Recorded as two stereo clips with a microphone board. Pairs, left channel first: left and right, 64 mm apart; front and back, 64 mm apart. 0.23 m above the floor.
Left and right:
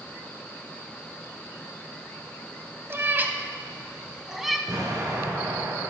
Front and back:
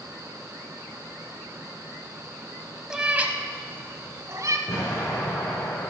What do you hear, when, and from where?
2.9 s a cat meowing: 105° right, 0.8 m; by 4.6 s 175° right, 1.1 m
4.7 s an explosion: 35° right, 3 m